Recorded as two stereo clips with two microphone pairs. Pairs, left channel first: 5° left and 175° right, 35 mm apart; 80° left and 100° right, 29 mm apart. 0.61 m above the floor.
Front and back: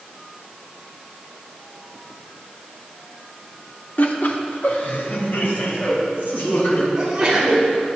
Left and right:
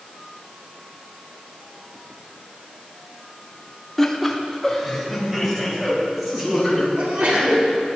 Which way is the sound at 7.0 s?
110° right.